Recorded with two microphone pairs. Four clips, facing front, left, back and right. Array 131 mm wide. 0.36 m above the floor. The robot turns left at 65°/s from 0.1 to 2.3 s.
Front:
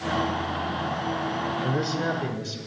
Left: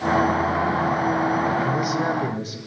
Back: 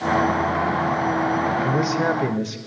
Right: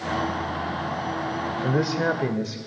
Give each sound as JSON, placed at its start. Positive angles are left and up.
{"t": 1.6, "sound": "a man speaking", "azimuth_deg": -105, "distance_m": 0.9}